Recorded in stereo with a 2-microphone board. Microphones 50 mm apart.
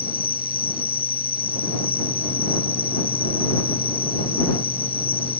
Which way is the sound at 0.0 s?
50° left (ahead or behind).